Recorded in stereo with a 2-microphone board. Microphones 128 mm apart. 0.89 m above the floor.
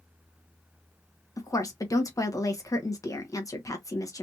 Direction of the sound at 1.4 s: 25° left (ahead or behind).